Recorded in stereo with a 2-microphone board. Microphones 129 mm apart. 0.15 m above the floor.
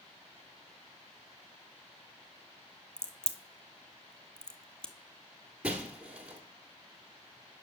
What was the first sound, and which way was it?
A crack, 5° left (ahead or behind).